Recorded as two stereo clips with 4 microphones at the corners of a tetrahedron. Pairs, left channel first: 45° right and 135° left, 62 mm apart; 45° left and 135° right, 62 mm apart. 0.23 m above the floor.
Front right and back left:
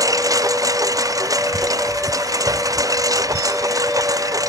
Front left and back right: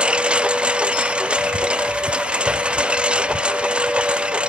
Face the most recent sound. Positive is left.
turn(degrees=150)